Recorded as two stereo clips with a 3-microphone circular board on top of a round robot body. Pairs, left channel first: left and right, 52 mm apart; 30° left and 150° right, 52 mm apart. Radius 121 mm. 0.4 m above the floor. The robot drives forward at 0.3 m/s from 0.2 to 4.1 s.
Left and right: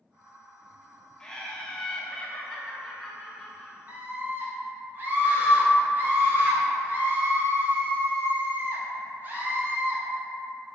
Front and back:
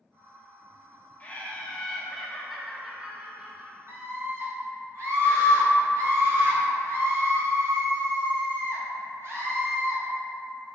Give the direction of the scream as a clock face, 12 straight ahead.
4 o'clock.